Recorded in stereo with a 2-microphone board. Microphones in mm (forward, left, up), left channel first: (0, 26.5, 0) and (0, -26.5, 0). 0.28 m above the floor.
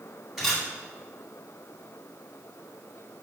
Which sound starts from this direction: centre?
A camera shutter, at 0.4 s.